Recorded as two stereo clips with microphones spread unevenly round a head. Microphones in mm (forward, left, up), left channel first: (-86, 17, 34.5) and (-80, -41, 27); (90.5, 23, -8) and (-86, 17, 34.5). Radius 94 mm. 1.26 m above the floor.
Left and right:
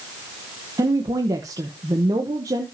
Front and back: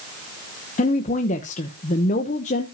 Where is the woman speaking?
45° right, 0.9 m.